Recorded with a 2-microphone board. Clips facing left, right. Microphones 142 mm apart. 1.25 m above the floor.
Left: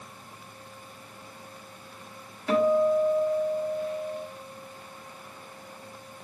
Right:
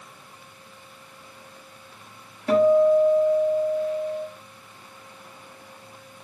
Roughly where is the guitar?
Right.